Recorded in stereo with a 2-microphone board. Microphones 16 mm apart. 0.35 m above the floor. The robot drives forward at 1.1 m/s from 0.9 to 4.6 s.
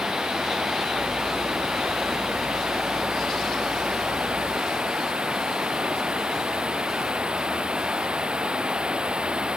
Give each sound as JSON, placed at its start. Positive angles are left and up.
{"t": 0.0, "sound": "running water", "side_deg": -65}